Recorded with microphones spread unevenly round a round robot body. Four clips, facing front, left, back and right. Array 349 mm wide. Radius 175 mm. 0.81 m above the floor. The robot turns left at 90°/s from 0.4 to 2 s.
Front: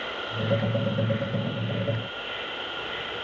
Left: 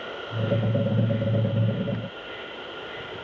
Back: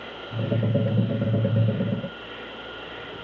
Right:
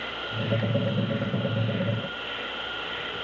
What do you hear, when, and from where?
0.0 s an insect: 20° left, 10 m; by 3.2 s 125° right, 10 m